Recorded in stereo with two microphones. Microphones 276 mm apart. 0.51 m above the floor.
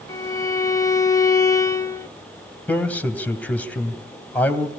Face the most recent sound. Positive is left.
turn(degrees=5)  # may be behind; listen again after turning